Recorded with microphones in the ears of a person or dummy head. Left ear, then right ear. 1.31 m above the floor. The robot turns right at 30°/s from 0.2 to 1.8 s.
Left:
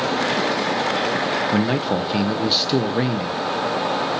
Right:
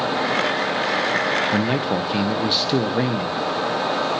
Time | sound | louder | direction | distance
1.5 | a man speaking | even | 5° right (ahead or behind) | 0.7 m